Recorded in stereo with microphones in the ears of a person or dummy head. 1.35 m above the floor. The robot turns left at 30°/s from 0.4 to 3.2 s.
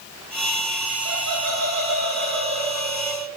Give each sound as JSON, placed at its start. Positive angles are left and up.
{"t": 1.1, "sound": "laughter", "azimuth_deg": -105, "distance_m": 1.3}